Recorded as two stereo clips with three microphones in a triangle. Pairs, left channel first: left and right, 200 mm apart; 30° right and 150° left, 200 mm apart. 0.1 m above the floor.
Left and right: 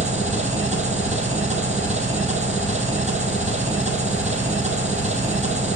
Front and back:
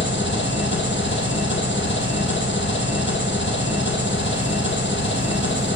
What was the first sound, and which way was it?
An engine running, 40° right.